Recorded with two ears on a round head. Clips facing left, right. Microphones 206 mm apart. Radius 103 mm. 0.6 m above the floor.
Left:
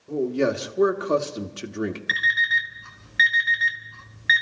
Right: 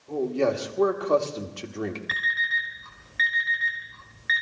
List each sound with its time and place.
0.1 s a man speaking: 20° left (ahead or behind), 1.4 m
2.1 s an alarm clock: 60° left (ahead or behind), 3 m